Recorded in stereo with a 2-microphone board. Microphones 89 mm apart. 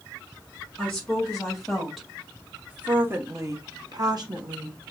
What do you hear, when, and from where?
0.8 s a woman speaking: 5° left (ahead or behind), 1.8 m; by 4.8 s 50° right (ahead or behind), 1.0 m